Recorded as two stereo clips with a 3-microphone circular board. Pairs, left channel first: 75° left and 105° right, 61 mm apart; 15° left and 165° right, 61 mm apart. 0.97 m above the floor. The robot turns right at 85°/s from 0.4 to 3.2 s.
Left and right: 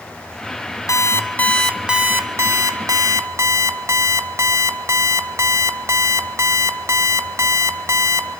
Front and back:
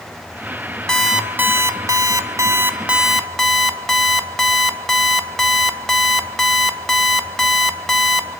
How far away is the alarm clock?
About 1.8 m.